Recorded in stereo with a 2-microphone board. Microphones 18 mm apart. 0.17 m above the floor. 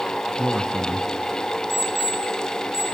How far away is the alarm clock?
About 6 m.